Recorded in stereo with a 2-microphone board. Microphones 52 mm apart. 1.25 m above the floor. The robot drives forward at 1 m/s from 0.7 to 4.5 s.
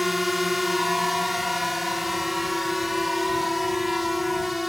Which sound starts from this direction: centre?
A drone, at 0.0 s.